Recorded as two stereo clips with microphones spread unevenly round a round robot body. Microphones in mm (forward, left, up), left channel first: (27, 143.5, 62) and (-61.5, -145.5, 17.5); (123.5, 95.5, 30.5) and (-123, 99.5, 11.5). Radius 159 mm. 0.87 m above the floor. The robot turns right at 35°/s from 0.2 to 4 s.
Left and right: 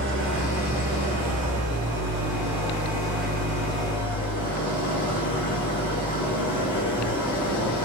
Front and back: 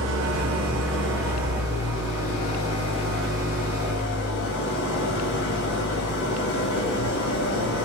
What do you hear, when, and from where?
0.0 s an engine running: 155° right, 2 m; by 7.9 s 25° right, 2 m